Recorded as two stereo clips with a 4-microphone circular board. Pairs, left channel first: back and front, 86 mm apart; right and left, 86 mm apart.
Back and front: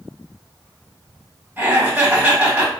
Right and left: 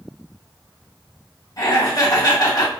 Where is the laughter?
70° right, 1.9 m.